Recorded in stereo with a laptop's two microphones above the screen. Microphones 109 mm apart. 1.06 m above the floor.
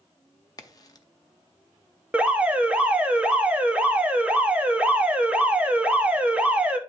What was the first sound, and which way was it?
A crack, 35° left (ahead or behind).